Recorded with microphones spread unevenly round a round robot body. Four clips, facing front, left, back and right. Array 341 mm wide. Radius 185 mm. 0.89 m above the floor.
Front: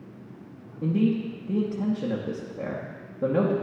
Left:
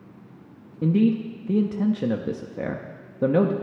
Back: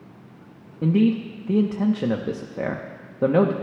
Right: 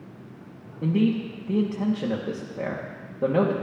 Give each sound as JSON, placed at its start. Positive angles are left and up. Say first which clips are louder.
{"t": 0.8, "sound": "a man speaking", "louder": "left 2 dB, back 4 dB", "azimuth_deg": 175, "distance_m": 0.8}